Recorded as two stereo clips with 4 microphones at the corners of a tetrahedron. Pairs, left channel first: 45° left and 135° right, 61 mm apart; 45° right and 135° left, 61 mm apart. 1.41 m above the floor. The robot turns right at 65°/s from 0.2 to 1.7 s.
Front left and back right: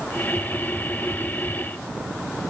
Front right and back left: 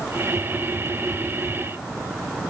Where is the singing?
No singing in this recording.